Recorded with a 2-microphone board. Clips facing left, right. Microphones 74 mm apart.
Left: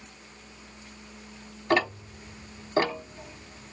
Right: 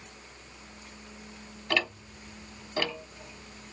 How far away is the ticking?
About 1.0 m.